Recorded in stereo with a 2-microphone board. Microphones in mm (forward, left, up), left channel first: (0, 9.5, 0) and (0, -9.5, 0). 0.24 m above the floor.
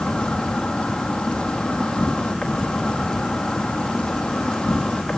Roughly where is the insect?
Left.